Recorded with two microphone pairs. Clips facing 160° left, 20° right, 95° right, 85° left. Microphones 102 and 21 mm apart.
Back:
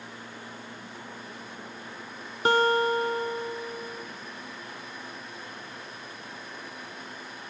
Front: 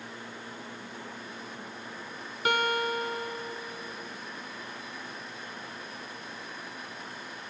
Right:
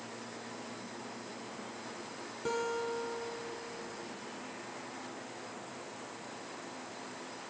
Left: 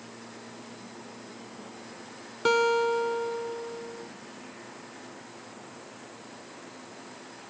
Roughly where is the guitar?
Left.